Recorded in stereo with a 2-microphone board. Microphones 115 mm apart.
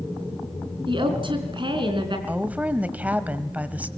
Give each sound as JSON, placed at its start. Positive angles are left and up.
{"t": 0.9, "sound": "a woman speaking", "side_deg": -50, "distance_m": 4.0}
{"t": 2.3, "sound": "a woman speaking", "side_deg": -15, "distance_m": 1.3}